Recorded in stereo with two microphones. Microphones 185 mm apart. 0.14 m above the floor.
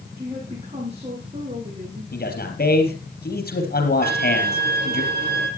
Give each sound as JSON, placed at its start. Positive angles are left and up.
{"t": 0.2, "sound": "a woman speaking", "side_deg": -40, "distance_m": 8.5}
{"t": 2.1, "sound": "a man speaking", "side_deg": 65, "distance_m": 3.5}
{"t": 4.0, "sound": "a violin", "side_deg": -65, "distance_m": 2.5}